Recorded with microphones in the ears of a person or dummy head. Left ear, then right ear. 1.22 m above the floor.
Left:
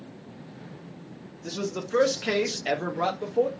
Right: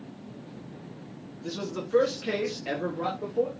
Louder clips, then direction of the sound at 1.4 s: Left 2 dB; 5° left (ahead or behind).